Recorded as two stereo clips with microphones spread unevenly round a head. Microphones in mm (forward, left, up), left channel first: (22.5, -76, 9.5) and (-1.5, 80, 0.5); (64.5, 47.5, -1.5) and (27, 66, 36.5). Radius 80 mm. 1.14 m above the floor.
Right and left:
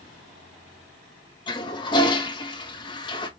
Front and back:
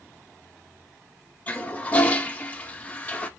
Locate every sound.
1.5 s a toilet flushing: 20° right, 1.7 m